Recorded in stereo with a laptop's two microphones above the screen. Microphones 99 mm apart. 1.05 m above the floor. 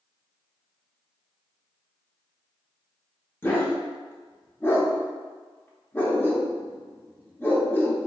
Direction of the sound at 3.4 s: 20° left (ahead or behind).